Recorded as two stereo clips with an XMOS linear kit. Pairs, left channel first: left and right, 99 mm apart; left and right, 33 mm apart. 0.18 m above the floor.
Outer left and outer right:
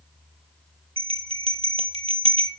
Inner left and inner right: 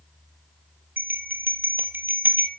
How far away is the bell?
About 1.8 m.